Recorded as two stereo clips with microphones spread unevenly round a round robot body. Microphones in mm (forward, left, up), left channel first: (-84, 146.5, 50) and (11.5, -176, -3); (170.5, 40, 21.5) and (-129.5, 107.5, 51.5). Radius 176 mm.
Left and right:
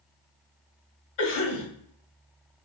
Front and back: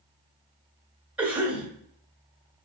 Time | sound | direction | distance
1.2 | a cough | 80° left | 2.5 m